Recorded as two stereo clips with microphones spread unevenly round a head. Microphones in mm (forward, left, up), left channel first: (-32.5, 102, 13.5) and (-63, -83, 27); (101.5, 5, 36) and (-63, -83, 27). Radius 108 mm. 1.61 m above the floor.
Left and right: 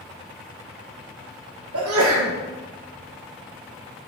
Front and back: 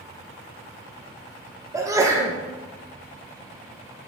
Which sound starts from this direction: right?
A sneeze, at 1.7 s.